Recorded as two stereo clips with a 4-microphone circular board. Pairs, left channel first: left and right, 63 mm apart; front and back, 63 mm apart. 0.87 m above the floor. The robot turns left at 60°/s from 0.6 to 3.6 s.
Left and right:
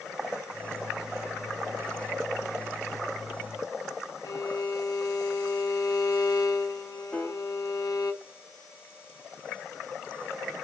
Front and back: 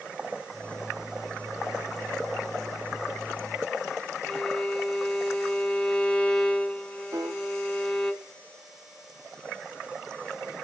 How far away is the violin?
About 1.0 m.